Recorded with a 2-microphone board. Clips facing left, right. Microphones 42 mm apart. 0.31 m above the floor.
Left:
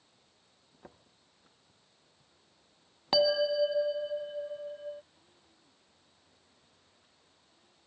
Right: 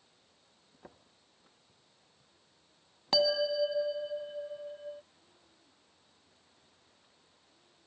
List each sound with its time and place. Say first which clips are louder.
3.1 s a bell: left 2 dB; 10° left (ahead or behind)